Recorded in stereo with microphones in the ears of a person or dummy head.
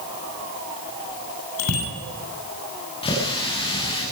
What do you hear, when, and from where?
1.6 s a bicycle bell: 85° left, 7.5 m
3.0 s a running tap: 20° left (ahead or behind), 6 m